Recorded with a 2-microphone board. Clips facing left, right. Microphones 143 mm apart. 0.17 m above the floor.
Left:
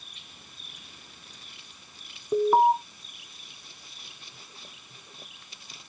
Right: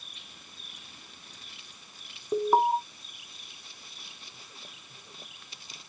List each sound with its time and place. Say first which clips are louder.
2.3 s an alarm: left 4 dB; 5° right (ahead or behind), 1.2 m